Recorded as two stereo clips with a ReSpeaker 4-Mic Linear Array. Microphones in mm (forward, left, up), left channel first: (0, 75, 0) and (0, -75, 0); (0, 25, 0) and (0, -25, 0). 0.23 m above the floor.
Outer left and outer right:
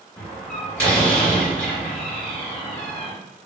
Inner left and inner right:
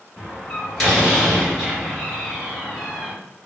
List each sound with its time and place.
0.2 s a door slam: 10° left (ahead or behind), 1.6 m